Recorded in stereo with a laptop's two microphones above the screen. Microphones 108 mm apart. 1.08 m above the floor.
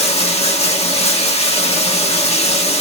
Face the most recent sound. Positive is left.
turn(degrees=75)  # may be behind; listen again after turning